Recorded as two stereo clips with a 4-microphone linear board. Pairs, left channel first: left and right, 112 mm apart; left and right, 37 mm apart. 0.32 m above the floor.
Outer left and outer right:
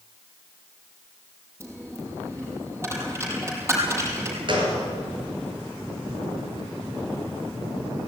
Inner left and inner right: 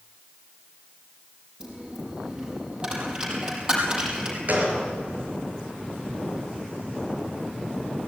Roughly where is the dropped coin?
Right.